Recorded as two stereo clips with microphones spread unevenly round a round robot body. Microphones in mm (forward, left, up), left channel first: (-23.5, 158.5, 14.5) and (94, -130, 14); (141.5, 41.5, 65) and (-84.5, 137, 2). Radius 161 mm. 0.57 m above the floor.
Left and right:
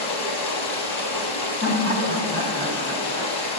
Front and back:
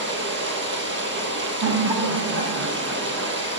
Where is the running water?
110° left, 2.5 m.